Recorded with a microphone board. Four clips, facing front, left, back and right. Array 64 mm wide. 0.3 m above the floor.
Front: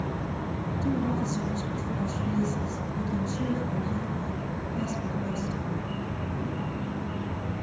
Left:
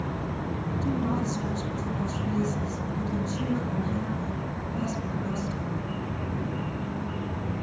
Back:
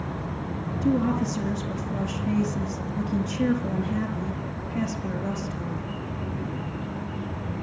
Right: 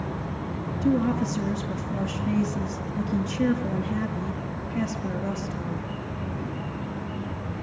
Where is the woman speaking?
130° right, 4.5 m.